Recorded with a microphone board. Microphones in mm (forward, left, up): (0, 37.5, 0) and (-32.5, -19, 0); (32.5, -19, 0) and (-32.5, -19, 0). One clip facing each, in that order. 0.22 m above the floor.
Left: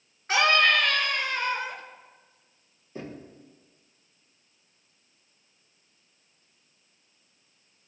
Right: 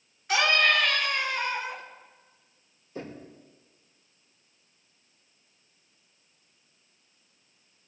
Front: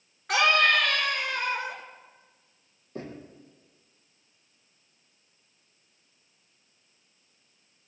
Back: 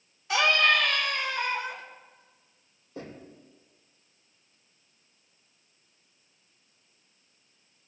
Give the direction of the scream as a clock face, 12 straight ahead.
12 o'clock.